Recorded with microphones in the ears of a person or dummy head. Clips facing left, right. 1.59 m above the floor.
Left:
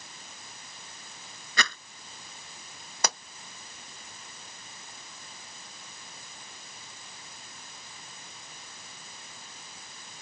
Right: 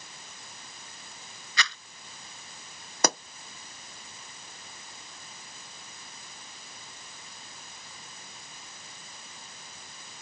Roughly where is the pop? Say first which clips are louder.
Right 6 dB; right.